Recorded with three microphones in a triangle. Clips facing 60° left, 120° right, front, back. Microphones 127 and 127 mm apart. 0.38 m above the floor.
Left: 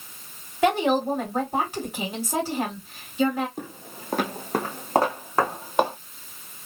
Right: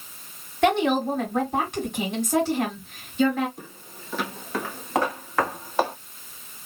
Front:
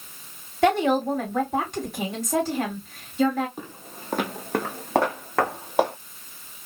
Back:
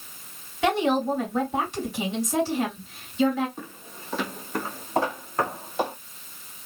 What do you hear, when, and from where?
0.6 s a woman speaking: 20° right, 2.5 m
3.6 s footsteps: 75° left, 0.7 m; by 5.9 s 10° right, 2 m